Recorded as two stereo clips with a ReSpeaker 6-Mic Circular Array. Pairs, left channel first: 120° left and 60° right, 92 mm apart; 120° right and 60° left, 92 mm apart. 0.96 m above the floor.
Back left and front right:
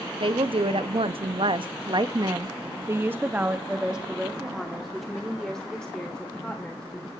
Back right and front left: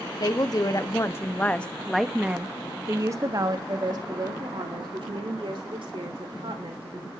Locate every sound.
0.2 s a woman speaking: 80° right, 1.3 m; by 7.1 s 40° left, 3 m